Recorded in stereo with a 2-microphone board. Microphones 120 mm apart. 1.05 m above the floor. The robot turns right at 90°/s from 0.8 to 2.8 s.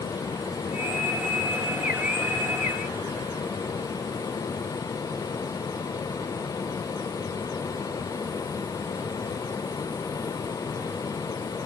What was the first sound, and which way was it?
Only background noise.